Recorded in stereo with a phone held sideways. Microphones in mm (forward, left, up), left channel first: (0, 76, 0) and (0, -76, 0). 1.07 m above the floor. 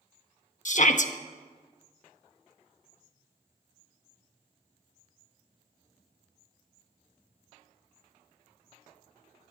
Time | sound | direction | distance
0.7 | a shout | 55° left (ahead or behind) | 1.1 m